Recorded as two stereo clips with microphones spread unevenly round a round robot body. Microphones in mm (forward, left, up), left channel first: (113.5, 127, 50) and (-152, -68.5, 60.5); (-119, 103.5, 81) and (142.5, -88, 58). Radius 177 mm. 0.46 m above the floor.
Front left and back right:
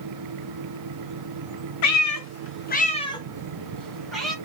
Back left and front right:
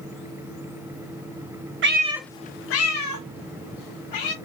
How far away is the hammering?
I don't hear hammering.